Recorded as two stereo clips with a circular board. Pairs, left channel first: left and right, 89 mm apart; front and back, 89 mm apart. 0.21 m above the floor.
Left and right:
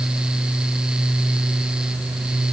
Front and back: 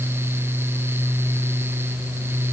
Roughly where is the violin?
No violin in this recording.